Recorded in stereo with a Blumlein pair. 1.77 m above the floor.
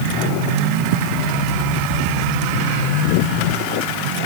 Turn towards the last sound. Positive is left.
No sound to turn to.